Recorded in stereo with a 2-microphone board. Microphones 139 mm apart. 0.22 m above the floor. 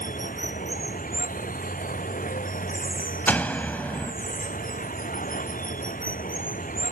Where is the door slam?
15° left (ahead or behind).